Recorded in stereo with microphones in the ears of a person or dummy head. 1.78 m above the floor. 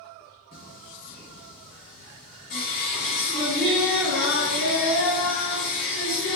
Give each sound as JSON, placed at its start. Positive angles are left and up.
{"t": 0.5, "sound": "singing", "side_deg": 20, "distance_m": 1.3}